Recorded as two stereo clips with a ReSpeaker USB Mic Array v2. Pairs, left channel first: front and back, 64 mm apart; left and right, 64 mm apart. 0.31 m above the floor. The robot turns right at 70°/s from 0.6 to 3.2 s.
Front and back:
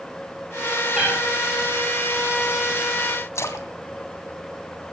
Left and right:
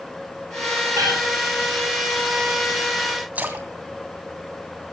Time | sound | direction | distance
0.9 | a cat meowing | 105° right | 5 m
3.4 | a splash | 30° right | 2.5 m